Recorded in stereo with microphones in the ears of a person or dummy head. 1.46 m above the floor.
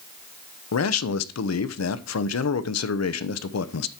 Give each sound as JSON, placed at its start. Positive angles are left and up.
{"t": 0.7, "sound": "a man speaking", "side_deg": 90, "distance_m": 0.8}